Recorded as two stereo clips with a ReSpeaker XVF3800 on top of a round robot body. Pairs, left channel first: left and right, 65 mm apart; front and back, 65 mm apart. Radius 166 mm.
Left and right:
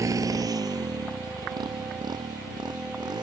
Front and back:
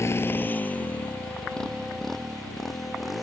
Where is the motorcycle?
50° right; by 3.2 s 90° right.